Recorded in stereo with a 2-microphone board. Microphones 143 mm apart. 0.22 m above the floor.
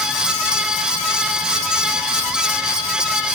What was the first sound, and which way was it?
Only background noise.